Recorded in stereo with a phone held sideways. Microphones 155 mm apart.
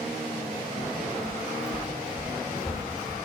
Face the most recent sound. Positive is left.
turn(degrees=-10)  # may be behind; listen again after turning